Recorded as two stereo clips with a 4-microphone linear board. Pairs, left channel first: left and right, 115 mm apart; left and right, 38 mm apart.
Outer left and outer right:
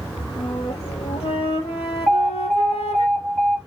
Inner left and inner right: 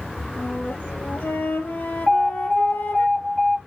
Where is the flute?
60° left (ahead or behind), 2.5 m.